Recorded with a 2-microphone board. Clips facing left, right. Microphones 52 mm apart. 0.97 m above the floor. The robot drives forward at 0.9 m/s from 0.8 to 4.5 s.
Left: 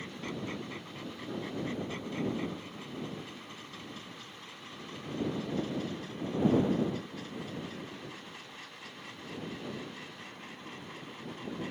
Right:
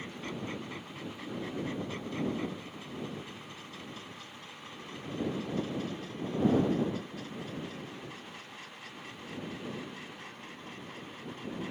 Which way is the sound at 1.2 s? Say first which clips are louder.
Even; 10° left (ahead or behind).